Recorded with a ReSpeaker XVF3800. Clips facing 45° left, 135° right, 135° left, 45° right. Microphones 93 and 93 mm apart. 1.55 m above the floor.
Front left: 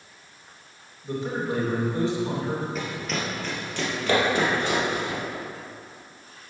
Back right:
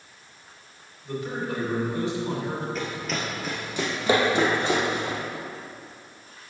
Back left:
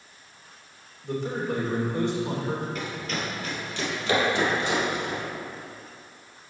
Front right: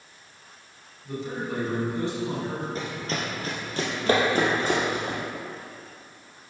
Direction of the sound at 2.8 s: 35° right.